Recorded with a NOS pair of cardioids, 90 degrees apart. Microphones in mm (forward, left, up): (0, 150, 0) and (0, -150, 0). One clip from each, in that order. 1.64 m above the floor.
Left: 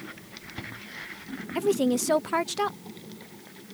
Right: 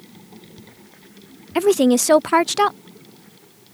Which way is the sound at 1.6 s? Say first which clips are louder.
Right 9 dB; 45° right.